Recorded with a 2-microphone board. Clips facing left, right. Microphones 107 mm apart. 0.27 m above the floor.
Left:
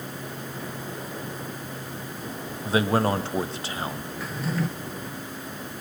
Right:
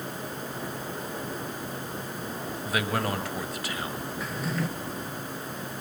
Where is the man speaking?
30° left (ahead or behind), 1.5 m.